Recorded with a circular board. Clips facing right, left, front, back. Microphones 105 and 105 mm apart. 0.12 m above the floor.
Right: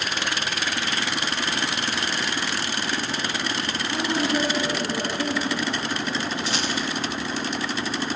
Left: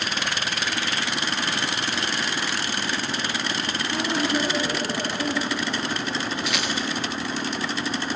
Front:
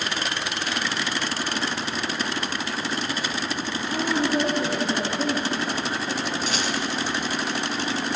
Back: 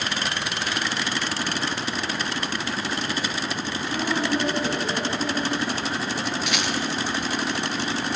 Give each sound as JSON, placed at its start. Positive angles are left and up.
{"t": 3.9, "sound": "a woman speaking", "azimuth_deg": -25, "distance_m": 8.0}
{"t": 6.5, "sound": "a rattle", "azimuth_deg": -40, "distance_m": 2.0}